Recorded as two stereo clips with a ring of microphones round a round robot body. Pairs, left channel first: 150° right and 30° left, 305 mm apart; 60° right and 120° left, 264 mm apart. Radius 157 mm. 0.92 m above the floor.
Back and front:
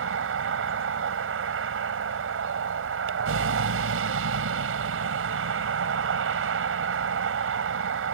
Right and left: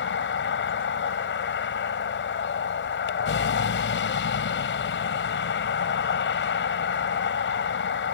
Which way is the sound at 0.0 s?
20° right.